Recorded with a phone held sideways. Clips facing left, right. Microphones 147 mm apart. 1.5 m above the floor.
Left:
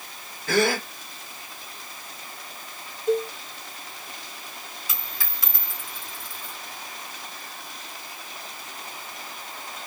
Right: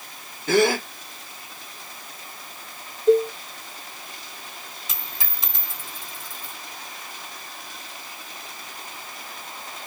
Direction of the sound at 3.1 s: 30° right (ahead or behind).